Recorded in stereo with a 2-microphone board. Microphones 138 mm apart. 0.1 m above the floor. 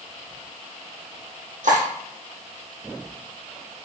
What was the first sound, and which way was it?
Cutlery clinking, 75° right (ahead or behind).